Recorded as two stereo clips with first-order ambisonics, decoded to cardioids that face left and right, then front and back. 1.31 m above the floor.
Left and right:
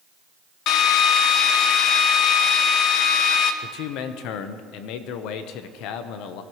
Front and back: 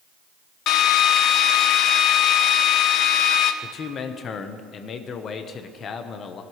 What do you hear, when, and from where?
0.7 s a drill: 45° left, 0.7 m
3.6 s a man speaking: 60° left, 0.9 m